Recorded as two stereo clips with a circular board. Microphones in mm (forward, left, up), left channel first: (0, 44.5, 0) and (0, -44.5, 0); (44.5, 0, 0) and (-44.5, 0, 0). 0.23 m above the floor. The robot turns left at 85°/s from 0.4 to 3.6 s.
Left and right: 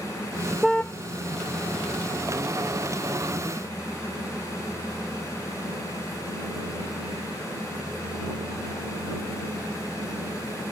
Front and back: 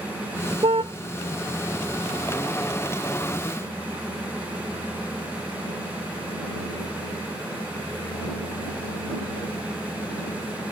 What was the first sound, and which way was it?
A car horn, straight behind.